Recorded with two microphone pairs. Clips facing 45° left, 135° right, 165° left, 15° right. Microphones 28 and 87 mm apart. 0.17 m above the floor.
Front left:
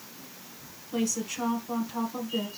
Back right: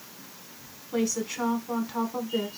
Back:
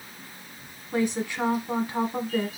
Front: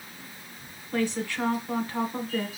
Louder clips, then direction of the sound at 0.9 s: Back right 2 dB, back 2 dB; 170° right.